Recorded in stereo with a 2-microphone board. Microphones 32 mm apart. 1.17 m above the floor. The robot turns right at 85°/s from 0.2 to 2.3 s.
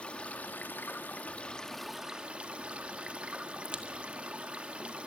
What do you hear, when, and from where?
0.0 s running water: 40° left, 2 m; by 5.1 s 140° right, 2 m
3.6 s a crack: 35° right (ahead or behind), 1.6 m